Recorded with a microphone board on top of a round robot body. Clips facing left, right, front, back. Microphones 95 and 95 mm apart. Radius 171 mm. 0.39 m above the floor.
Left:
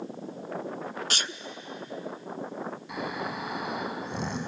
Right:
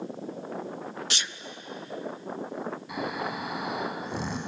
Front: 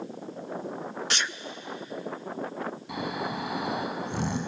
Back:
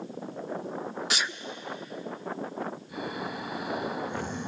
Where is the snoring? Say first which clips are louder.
Right 1 dB, front 3 dB; straight ahead, 5 m.